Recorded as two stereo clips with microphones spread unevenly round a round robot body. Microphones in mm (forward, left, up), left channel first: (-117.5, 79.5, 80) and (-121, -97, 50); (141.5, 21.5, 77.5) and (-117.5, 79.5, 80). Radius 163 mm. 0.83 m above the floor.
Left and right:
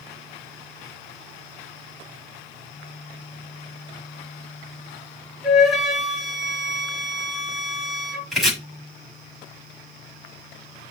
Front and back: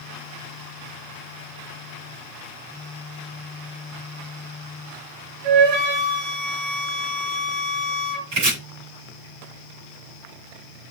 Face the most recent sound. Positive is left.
turn(degrees=180)